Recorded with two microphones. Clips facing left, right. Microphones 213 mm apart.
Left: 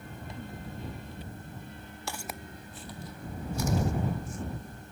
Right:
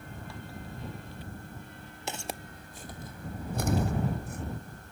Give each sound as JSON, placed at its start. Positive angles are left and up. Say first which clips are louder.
{"t": 2.1, "sound": "footsteps", "louder": "right 2 dB", "side_deg": -20}